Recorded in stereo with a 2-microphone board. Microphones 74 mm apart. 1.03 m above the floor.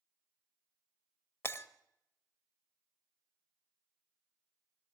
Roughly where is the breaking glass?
Left.